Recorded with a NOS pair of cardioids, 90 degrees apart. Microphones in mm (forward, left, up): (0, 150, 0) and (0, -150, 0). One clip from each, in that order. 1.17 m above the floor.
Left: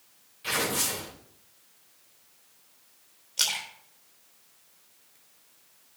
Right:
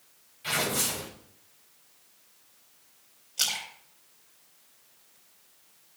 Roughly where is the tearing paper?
Ahead.